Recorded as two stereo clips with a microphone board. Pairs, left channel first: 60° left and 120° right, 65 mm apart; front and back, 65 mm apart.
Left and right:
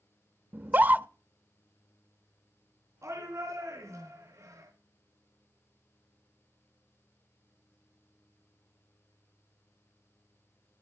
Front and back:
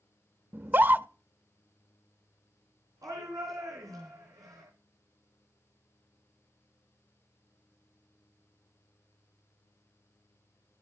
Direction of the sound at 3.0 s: 160° right.